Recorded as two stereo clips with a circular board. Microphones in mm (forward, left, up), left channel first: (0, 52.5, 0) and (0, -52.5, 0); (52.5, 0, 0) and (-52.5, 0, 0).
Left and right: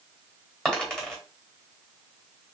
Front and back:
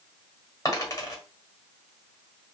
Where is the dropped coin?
15° left, 1.7 m.